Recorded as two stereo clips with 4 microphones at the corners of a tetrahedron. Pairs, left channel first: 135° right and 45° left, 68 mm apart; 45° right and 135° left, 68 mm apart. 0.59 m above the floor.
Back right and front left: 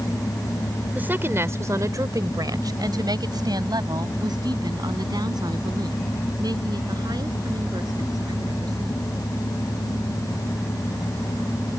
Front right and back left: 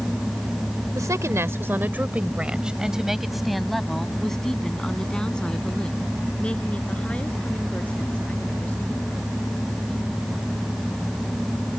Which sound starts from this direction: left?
A woman speaking, at 0.9 s.